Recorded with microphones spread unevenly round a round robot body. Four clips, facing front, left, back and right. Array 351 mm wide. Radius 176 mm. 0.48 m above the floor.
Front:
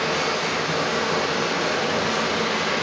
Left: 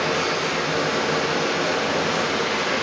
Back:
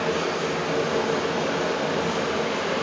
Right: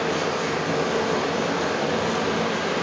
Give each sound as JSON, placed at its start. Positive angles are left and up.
{"t": 0.0, "sound": "running water", "azimuth_deg": -95, "distance_m": 7.5}